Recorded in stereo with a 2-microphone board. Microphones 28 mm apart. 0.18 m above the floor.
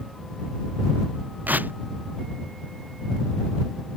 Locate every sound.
1.5 s tearing paper: 85° right